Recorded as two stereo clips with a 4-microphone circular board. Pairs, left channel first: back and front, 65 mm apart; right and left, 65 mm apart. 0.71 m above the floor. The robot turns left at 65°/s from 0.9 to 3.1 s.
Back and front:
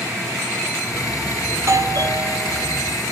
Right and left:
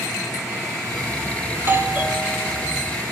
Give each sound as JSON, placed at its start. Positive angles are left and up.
{"t": 1.5, "sound": "a doorbell", "azimuth_deg": 50, "distance_m": 2.5}